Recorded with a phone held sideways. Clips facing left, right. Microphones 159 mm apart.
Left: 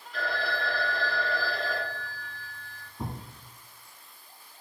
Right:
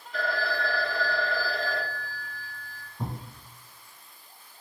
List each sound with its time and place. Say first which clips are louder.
0.1 s a phone ringing: right 2 dB; 50° right (ahead or behind), 1.7 m
3.0 s a thud: right 1 dB; centre (ahead or behind), 1.5 m